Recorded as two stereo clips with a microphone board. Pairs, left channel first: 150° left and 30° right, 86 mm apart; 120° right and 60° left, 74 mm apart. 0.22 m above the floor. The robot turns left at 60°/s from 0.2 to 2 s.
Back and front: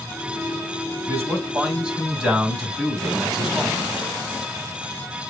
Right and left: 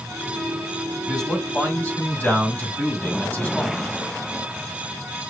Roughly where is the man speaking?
Ahead right.